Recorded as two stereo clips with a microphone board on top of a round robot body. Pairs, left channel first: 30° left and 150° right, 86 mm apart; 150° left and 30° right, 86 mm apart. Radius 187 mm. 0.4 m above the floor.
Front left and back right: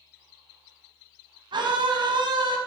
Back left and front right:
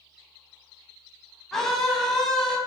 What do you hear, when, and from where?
1.5 s a scream: 125° right, 5 m